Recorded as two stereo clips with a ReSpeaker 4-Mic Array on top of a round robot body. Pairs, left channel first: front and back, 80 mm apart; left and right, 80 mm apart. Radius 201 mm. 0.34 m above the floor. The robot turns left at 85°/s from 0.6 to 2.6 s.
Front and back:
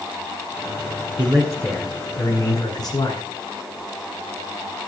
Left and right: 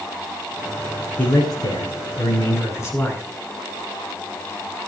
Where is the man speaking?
160° left, 9 m; by 3.2 s 40° left, 9 m.